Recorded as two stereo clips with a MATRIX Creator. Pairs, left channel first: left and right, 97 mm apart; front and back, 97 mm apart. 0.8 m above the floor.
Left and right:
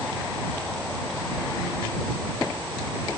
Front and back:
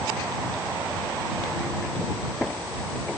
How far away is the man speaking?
I don't hear a man speaking.